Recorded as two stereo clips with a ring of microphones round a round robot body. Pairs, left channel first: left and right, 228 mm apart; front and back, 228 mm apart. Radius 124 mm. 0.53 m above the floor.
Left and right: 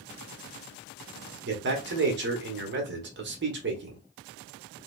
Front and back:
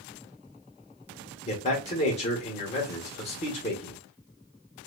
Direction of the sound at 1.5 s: 60° right.